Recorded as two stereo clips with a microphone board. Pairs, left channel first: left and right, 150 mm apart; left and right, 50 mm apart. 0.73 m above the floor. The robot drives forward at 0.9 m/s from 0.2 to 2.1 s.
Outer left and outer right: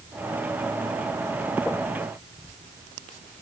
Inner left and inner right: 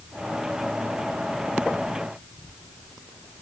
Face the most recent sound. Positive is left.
No sound to turn to.